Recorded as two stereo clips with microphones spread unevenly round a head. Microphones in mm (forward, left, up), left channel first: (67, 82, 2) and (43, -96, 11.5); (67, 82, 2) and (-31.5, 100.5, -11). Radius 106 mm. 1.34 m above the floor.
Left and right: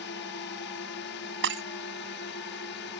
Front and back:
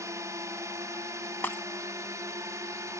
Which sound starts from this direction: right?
Breaking glass, at 1.4 s.